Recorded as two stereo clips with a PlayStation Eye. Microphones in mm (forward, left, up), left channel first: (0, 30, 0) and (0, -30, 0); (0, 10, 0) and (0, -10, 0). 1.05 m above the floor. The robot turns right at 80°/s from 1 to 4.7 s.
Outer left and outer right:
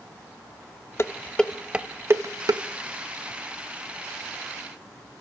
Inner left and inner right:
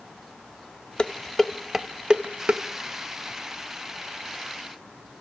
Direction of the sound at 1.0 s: 45° left (ahead or behind).